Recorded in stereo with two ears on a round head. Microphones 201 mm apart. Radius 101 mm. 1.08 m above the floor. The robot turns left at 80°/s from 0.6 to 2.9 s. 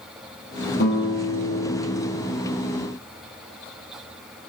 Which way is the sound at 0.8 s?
135° left.